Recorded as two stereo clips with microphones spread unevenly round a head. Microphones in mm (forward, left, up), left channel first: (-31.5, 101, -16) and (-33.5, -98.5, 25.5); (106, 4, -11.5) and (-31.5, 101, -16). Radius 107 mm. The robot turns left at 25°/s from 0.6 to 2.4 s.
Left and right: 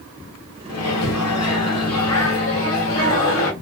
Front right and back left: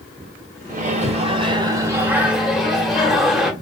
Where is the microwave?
100° left, 1.0 m; by 3.5 s 55° left, 1.0 m.